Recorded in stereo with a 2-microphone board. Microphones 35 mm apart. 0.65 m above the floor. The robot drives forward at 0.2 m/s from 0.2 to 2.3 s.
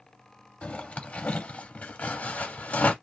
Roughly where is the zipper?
Left.